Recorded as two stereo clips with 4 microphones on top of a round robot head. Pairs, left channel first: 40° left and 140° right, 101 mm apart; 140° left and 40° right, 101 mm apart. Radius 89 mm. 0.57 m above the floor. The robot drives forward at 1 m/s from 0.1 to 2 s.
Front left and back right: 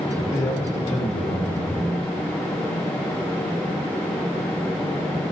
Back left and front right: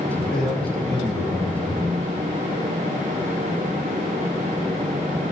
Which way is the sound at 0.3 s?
55° left.